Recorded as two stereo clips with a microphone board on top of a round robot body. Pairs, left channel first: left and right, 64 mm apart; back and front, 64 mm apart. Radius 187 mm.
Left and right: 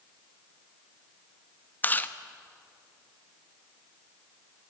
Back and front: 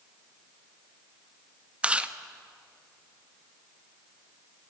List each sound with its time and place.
1.8 s chewing: 55° left, 1.4 m